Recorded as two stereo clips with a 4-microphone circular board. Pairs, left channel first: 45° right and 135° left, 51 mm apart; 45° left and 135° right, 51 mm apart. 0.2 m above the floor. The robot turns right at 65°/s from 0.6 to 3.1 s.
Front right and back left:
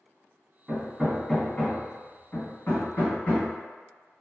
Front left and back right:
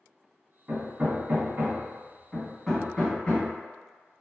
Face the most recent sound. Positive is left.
turn(degrees=-15)